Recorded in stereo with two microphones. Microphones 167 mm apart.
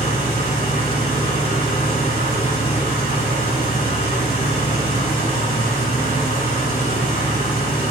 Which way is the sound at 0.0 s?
65° right (ahead or behind).